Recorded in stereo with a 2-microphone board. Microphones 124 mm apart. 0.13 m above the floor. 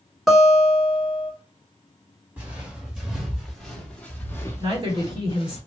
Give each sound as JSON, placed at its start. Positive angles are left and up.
{"t": 0.3, "sound": "a guitar", "side_deg": 0, "distance_m": 1.3}
{"t": 2.4, "sound": "footsteps", "side_deg": -15, "distance_m": 1.8}
{"t": 4.6, "sound": "a woman speaking", "side_deg": -40, "distance_m": 1.8}